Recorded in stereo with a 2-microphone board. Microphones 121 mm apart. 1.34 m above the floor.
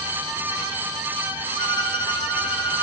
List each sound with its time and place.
1.6 s a violin: 40° left (ahead or behind), 2.0 m